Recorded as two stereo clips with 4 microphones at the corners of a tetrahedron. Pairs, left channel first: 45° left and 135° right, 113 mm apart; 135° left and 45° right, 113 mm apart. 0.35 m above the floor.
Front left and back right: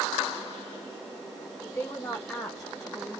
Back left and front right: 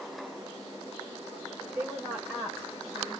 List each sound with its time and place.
1.6 s a woman speaking: 5° left, 1.5 m; by 3.2 s 160° left, 1.4 m